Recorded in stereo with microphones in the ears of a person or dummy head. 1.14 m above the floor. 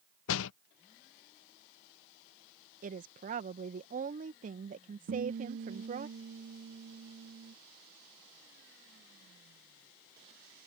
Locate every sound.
0.3 s a door slam: 75° left (ahead or behind)
2.8 s a woman speaking: 40° right (ahead or behind)
5.1 s a guitar: 70° right (ahead or behind)